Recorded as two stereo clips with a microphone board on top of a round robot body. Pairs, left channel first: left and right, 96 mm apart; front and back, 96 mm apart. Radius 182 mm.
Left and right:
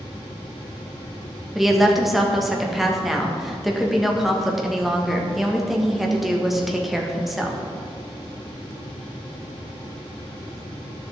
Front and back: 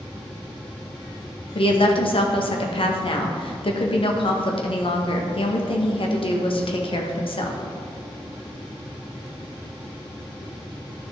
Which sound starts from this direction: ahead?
A woman speaking, at 1.6 s.